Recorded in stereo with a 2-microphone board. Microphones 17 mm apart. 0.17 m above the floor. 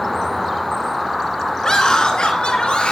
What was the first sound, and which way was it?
A scream, 40° left (ahead or behind).